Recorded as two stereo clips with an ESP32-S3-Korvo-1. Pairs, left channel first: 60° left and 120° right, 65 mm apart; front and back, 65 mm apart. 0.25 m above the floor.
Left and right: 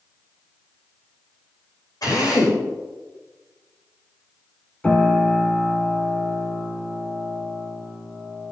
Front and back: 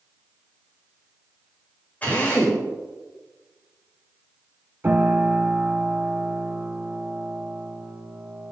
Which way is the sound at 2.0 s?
65° left.